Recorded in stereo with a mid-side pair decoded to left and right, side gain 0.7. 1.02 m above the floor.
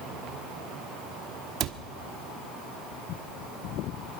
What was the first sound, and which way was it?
A cupboard door, 50° right.